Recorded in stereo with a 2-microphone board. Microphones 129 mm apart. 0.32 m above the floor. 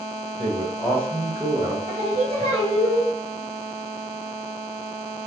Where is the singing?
50° right (ahead or behind), 1.5 m.